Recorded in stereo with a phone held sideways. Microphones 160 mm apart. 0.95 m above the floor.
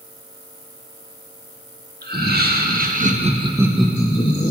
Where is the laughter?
75° right (ahead or behind), 1.8 m; by 4.5 s 45° left (ahead or behind), 1.0 m.